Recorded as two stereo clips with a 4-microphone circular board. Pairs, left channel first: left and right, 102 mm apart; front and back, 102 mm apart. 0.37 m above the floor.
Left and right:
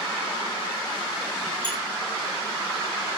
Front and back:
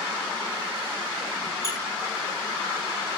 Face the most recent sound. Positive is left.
turn(degrees=-50)